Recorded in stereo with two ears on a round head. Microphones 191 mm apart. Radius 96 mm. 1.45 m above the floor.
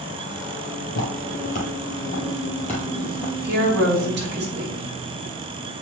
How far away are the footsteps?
About 2.5 m.